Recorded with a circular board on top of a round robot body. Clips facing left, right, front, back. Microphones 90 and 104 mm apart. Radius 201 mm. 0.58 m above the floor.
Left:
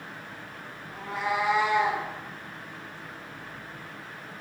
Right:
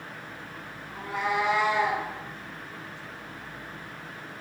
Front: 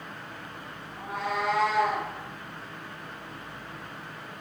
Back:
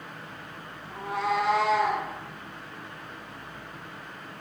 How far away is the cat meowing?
About 1.1 m.